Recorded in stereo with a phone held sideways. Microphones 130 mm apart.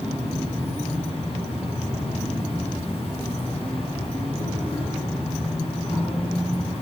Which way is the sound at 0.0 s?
50° left (ahead or behind).